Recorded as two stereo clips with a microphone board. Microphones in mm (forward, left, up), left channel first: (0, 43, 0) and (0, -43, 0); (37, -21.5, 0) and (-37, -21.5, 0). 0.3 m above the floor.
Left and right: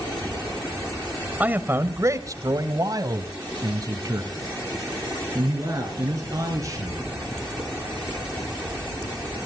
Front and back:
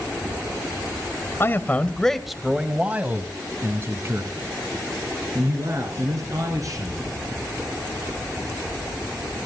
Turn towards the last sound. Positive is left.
turn(degrees=-140)